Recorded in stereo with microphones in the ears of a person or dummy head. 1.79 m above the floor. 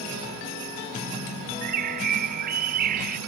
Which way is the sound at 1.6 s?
50° right (ahead or behind).